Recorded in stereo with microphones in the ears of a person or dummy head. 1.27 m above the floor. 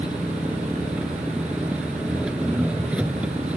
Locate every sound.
0.0 s an engine running: 10° right (ahead or behind)